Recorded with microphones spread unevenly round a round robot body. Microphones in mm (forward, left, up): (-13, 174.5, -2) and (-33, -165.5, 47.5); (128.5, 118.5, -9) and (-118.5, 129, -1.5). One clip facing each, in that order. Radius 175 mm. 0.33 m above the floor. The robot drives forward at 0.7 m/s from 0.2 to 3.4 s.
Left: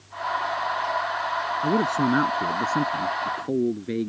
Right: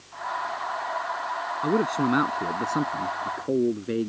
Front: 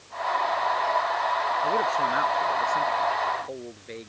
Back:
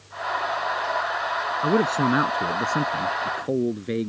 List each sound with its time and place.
1.6 s a man speaking: 155° left; by 4.1 s 165° left